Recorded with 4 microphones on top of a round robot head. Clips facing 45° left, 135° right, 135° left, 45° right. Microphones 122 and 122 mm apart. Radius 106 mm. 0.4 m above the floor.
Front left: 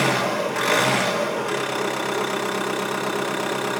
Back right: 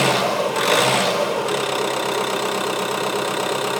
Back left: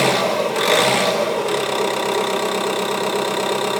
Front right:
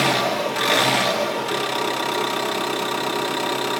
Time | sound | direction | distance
0.0 | an engine running | 160° left | 1.8 m